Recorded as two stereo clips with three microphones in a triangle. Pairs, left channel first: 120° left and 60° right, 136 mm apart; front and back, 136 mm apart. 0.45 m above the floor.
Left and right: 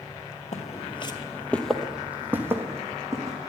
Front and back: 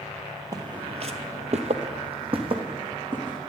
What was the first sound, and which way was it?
Footsteps, 120° left.